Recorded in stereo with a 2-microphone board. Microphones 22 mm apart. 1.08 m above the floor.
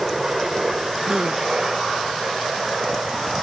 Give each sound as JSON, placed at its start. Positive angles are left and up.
{"t": 0.0, "sound": "a helicopter", "side_deg": -15}
{"t": 1.1, "sound": "a gasp", "side_deg": -35}